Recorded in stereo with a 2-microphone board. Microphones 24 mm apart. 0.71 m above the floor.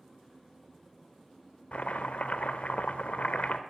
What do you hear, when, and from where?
1.7 s chopping: 65° left (ahead or behind), 0.6 m